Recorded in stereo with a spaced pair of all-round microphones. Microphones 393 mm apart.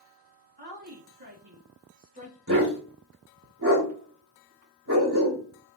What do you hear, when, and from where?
0.6 s a woman speaking: 65° right (ahead or behind), 1.6 m; by 2.4 s 25° right (ahead or behind), 1.5 m
2.5 s a dog barking: 50° right (ahead or behind), 2.5 m